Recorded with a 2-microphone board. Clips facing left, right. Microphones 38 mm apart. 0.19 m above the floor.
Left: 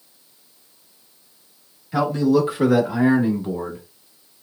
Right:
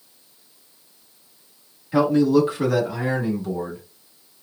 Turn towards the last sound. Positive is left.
turn(degrees=35)  # may be behind; listen again after turning